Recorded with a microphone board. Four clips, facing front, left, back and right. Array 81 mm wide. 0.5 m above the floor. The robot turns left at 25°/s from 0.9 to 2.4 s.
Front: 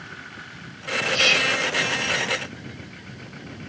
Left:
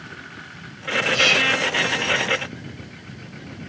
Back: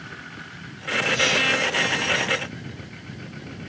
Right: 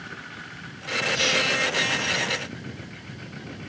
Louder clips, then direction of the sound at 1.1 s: Left 4 dB, even; 65° left.